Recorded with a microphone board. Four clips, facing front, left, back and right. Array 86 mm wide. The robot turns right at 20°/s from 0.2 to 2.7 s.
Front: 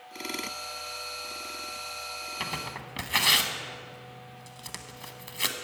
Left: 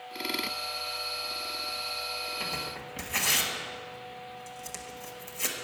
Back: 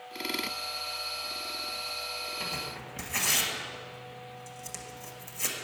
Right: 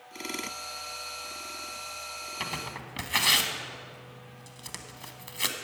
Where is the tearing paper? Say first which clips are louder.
Even, front 2 dB; 40° right, 1.0 m; by 5.5 s 35° right, 1.0 m.